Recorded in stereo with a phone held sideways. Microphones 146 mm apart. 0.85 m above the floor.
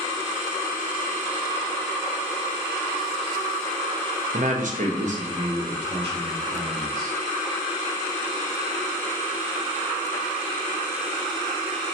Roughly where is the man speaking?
Right.